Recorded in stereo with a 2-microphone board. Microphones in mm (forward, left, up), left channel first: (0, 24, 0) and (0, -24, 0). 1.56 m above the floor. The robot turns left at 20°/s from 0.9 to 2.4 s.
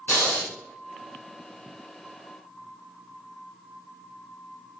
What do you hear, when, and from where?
0.1 s breathing: 45° left (ahead or behind), 1.9 m